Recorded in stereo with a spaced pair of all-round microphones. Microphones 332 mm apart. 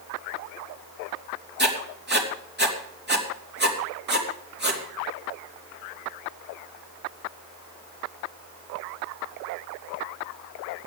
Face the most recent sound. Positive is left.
turn(degrees=-30)  # may be behind; listen again after turning